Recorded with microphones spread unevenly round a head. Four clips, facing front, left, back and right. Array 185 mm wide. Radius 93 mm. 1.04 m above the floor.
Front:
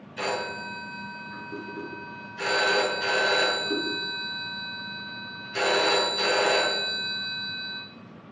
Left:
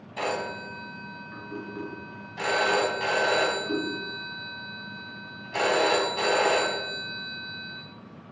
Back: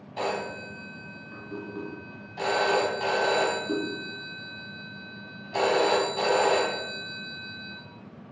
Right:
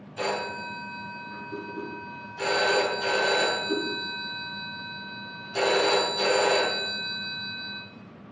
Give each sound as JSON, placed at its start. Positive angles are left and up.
{"t": 0.2, "sound": "a phone ringing", "azimuth_deg": 155, "distance_m": 5.5}